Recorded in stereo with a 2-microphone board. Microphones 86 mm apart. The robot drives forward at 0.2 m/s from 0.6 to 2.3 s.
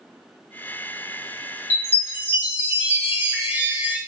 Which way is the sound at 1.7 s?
25° right (ahead or behind).